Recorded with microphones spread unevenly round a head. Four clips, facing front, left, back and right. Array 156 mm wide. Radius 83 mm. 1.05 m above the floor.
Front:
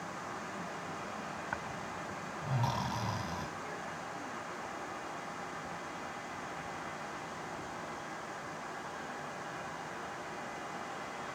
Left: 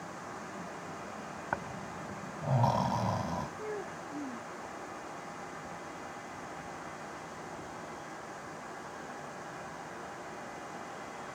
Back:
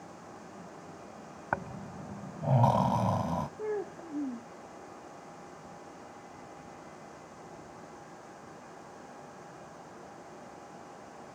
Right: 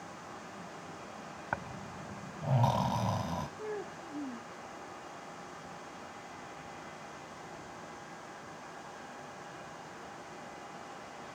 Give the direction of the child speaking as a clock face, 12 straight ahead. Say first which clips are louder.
Left 1 dB, back 7 dB; 6 o'clock.